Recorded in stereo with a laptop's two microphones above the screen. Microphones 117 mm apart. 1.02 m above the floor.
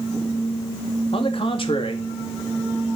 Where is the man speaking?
45° left (ahead or behind), 2.5 m.